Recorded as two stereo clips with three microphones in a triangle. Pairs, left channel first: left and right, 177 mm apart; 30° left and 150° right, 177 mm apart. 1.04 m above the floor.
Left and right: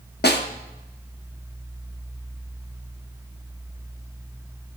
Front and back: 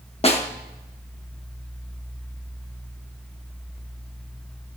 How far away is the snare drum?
About 0.9 m.